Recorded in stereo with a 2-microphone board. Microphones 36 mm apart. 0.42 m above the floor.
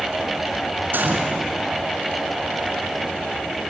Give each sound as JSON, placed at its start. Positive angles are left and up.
{"t": 0.9, "sound": "a gunshot", "side_deg": -65, "distance_m": 4.0}